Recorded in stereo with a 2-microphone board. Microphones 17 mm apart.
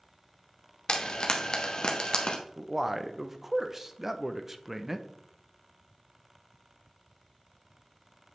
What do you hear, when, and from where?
0.9 s frying: 50° left (ahead or behind), 1.0 m
2.6 s a man speaking: 15° right (ahead or behind), 0.6 m